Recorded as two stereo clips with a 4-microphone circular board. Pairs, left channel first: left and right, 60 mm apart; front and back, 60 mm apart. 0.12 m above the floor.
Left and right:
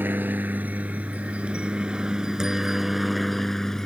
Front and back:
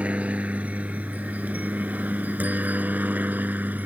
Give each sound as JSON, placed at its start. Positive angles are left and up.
{"t": 0.0, "sound": "a helicopter", "azimuth_deg": -125}